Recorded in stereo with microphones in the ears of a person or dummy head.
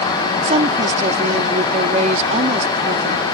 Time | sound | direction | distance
0.4 | a woman speaking | 45° right (ahead or behind) | ?